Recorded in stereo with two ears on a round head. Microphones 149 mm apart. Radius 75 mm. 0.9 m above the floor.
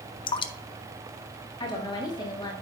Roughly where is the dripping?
Left.